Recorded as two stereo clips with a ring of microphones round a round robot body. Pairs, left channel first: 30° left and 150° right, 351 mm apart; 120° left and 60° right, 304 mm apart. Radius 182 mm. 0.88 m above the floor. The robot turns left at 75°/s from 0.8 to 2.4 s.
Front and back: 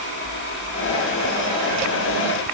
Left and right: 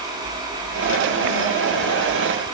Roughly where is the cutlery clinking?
I don't hear cutlery clinking.